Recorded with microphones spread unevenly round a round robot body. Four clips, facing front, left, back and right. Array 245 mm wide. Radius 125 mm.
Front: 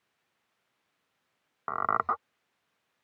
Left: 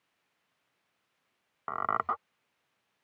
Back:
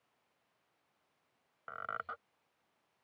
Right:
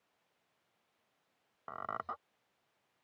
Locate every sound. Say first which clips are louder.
1.7 s a squeak: left 10 dB, front 14 dB; 30° left